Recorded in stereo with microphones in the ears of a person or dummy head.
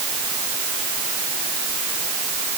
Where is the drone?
No drone in this recording.